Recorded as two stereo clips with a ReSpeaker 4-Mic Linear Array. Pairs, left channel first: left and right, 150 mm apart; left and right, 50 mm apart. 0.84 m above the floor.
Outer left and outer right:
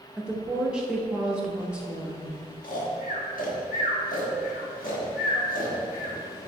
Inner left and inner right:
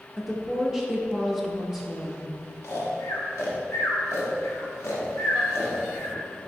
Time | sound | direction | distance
0.2 | a woman speaking | 5° right (ahead or behind) | 0.9 m
2.6 | snoring | 70° left (ahead or behind) | 1.2 m